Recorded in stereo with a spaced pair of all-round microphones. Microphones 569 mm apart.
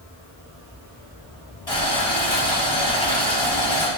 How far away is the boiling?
About 3 m.